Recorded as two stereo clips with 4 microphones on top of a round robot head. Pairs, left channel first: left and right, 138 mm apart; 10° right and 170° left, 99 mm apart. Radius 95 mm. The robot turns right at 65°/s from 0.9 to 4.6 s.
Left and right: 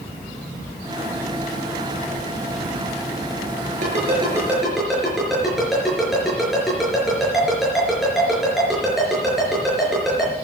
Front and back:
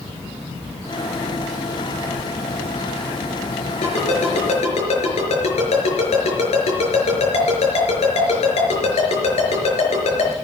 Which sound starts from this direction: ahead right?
A ringtone, at 3.8 s.